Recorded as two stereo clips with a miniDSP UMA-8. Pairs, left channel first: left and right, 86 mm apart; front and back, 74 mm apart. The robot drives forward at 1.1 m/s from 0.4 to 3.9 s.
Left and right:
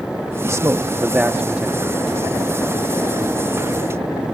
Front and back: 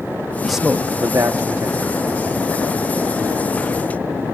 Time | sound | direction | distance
0.4 | a man speaking | 80° right | ?